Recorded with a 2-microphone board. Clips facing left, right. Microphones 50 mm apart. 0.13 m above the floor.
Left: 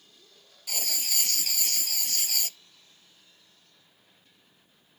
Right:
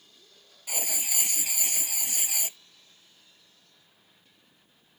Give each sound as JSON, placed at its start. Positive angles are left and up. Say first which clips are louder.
{"t": 0.7, "sound": "writing", "louder": "even", "side_deg": -20}